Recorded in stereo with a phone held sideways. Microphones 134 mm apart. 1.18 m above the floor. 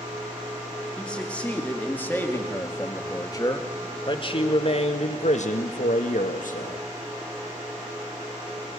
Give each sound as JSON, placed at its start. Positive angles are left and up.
{"t": 1.0, "sound": "a man speaking", "side_deg": 5, "distance_m": 3.0}